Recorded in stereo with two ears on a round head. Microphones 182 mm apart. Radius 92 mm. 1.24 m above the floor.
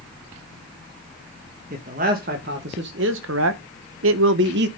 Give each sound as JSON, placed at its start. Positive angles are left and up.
{"t": 1.7, "sound": "a man speaking", "side_deg": -40, "distance_m": 1.7}